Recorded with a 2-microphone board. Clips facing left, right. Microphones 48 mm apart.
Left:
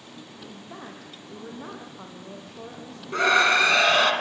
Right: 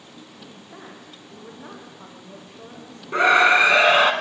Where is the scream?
20° right (ahead or behind), 2 m.